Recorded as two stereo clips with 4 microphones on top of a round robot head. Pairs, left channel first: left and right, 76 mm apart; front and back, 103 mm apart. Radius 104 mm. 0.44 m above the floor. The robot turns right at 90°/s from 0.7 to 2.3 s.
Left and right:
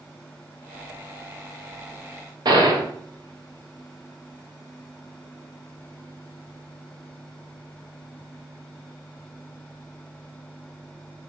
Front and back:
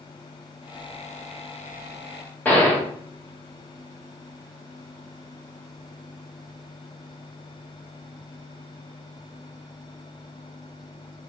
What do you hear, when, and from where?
2.5 s a gunshot: 75° right, 2.5 m